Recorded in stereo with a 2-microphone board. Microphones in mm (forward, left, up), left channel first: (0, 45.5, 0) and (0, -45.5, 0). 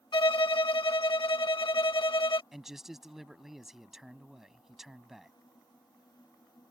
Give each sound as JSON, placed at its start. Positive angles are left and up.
{"t": 0.1, "sound": "a violin", "side_deg": 60}
{"t": 2.5, "sound": "a man speaking", "side_deg": 0}